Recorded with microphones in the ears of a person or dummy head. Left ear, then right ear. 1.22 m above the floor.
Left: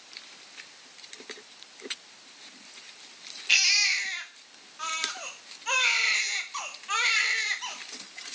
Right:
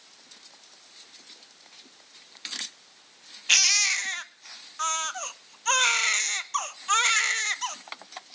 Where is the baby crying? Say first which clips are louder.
Right 1 dB; 40° right (ahead or behind), 0.8 m.